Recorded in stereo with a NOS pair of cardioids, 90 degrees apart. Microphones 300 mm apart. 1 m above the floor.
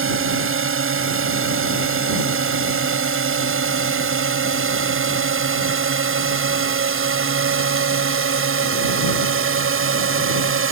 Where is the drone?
45° right.